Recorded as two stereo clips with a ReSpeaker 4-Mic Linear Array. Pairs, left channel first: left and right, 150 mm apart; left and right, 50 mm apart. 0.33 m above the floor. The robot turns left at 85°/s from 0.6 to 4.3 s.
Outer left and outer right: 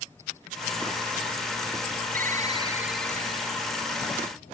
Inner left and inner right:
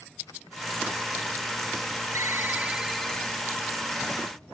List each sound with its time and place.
2.1 s a ringtone: 110° right; by 3.5 s 130° left